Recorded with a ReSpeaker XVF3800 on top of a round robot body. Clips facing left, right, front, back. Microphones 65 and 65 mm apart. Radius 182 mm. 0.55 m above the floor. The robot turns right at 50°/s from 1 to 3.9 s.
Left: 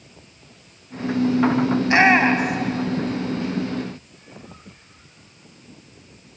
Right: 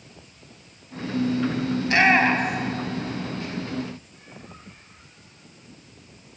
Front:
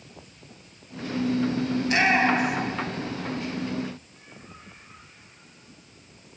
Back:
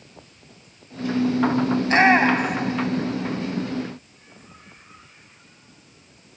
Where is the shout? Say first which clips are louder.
Left 2 dB, back 5 dB; 140° left, 1.7 m; by 2.8 s 170° right, 1.7 m.